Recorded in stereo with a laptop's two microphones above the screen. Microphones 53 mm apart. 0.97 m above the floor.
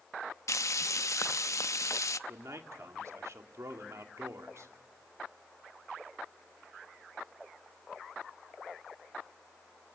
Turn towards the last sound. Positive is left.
turn(degrees=-70)  # may be behind; listen again after turning